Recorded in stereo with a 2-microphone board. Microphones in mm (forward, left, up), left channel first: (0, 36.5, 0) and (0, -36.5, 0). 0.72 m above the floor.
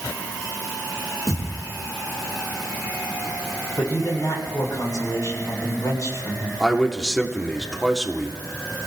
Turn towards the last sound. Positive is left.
turn(degrees=5)  # may be behind; listen again after turning